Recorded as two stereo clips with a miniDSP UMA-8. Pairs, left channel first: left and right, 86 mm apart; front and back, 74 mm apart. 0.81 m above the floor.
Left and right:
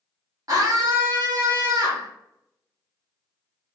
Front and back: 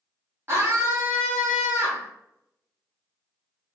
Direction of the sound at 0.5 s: 130° right.